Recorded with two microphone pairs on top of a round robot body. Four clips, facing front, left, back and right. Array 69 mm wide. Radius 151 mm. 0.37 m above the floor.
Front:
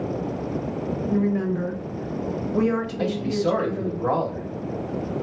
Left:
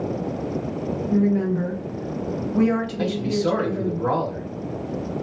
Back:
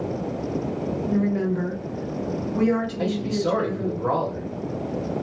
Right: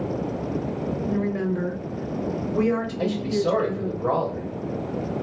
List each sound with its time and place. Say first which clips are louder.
1.1 s a woman speaking: left 7 dB, even; 65° right, 1.3 m; by 4.0 s 80° left, 1.8 m
3.0 s a man speaking: left 1 dB, front 1 dB; 70° left, 1.9 m